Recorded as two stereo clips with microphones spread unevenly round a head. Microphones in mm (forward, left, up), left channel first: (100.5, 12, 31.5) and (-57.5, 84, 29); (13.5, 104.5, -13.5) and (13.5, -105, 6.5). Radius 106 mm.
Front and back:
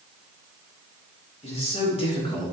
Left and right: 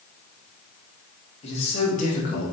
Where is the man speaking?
30° left, 3 m; by 2.5 s 40° left, 1.8 m.